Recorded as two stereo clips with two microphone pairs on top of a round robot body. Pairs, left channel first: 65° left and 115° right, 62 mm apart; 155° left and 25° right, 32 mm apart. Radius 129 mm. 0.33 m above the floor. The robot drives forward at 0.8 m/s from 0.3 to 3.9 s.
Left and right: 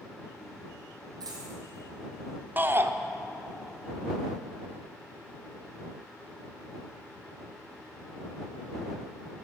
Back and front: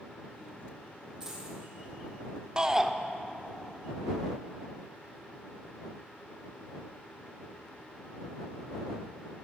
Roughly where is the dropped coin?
Right.